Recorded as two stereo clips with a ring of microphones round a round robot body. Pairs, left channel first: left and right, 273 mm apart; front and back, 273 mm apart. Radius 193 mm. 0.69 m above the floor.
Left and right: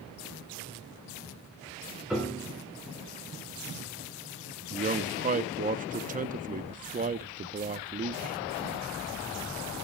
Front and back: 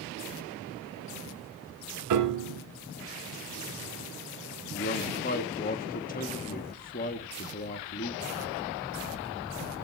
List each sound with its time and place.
2.1 s a piano: straight behind, 1.7 m
4.7 s a man speaking: 45° right, 0.7 m